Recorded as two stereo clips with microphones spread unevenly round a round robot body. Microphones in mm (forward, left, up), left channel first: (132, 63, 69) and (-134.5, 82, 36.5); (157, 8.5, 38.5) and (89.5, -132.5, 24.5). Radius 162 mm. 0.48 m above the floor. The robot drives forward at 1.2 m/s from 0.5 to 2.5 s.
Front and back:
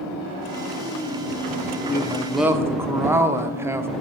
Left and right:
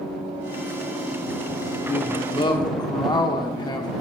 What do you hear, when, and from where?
1.9 s a man speaking: 45° left, 1.2 m; by 3.9 s 115° left, 1.1 m